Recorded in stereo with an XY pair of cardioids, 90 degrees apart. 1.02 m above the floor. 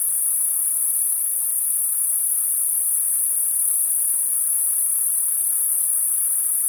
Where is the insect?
35° left, 1.3 m.